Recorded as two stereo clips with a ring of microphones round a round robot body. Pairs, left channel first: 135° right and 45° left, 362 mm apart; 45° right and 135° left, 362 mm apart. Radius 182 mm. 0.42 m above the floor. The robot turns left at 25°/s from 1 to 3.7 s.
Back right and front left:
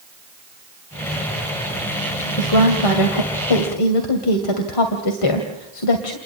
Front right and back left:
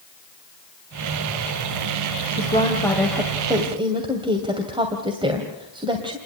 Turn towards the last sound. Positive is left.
turn(degrees=-150)